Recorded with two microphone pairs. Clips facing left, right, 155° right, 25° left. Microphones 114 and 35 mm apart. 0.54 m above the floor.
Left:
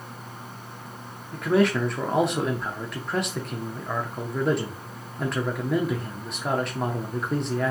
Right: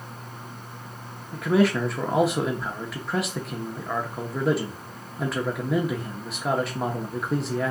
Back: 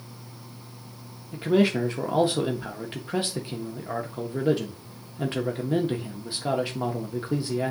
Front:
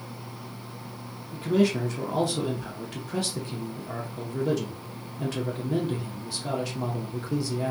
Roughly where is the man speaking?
Behind.